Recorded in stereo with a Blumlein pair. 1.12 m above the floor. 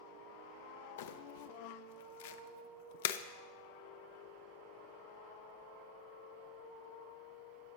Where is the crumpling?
55° left, 0.5 m.